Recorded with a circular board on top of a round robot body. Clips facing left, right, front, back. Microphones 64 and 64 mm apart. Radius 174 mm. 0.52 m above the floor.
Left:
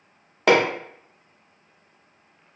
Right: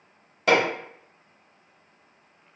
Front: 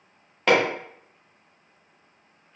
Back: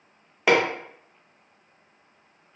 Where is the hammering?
100° left, 1.0 m.